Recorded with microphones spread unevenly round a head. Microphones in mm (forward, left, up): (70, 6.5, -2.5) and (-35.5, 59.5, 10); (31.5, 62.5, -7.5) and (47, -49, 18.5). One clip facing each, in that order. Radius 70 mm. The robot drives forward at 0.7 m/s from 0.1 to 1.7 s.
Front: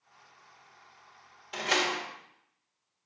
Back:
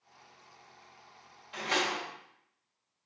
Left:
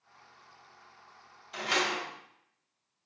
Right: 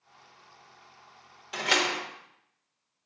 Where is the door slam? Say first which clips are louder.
Front 2 dB, right 3 dB; 85° right, 1.3 m; by 2.0 s 90° right, 1.3 m.